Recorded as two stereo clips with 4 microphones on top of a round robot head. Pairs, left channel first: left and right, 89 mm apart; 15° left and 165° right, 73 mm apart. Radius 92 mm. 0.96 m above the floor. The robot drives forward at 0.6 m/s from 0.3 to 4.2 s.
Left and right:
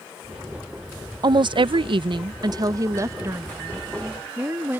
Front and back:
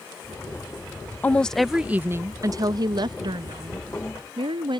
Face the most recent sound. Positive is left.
turn(degrees=-160)